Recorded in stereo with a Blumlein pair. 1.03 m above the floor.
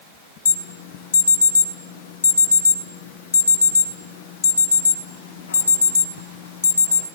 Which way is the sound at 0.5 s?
70° left.